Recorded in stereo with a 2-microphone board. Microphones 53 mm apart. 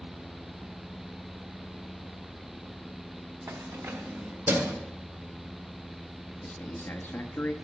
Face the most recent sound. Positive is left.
turn(degrees=40)  # may be behind; listen again after turning